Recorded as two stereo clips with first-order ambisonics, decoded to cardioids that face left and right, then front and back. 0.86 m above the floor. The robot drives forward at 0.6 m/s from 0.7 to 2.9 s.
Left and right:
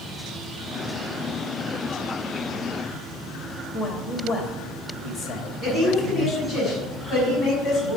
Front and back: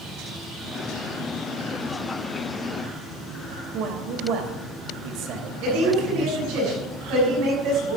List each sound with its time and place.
3.7 s a man speaking: straight behind, 1.5 m
5.6 s a woman speaking: 175° right, 5.5 m